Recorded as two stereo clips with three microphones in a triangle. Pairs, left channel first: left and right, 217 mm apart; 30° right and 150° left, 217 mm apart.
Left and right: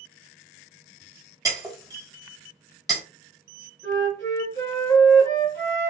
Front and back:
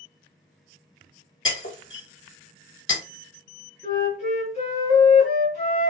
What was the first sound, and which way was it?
Breaking glass, 15° right.